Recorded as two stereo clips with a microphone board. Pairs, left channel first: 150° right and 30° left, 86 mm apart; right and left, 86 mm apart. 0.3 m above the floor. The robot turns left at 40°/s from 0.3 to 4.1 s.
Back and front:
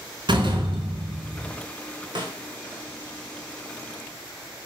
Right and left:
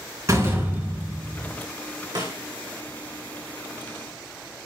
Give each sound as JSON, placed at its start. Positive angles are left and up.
{"t": 0.3, "sound": "a door slam", "azimuth_deg": 40, "distance_m": 2.5}
{"t": 2.1, "sound": "a snare drum", "azimuth_deg": 55, "distance_m": 3.0}